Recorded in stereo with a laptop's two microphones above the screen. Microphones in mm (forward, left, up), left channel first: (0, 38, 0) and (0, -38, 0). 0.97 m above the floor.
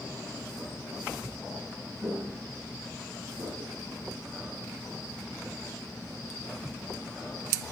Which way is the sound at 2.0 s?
50° right (ahead or behind).